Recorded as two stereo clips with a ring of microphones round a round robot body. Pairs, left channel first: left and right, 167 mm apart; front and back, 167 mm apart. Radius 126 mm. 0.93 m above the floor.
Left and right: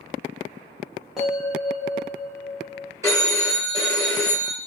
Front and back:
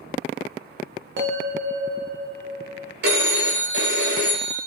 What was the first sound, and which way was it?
A bell, straight behind.